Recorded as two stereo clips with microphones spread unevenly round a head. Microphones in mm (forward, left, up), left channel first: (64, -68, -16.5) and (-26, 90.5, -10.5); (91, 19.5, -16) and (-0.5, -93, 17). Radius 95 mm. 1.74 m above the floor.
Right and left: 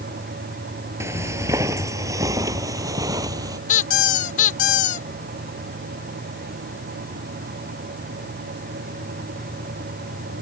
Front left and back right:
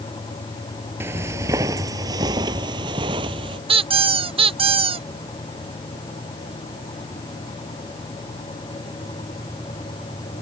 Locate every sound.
1.0 s footsteps: 175° right
3.7 s a squeak: 105° right